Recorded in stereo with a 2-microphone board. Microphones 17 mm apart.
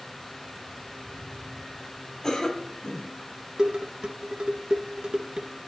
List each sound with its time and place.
2.2 s a cough: 40° left (ahead or behind), 4 m
3.6 s dishes clattering: 55° right (ahead or behind), 1.6 m